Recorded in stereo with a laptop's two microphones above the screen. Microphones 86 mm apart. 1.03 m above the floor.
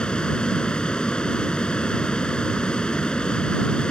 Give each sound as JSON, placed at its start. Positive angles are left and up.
{"t": 0.0, "sound": "a fan", "side_deg": 10}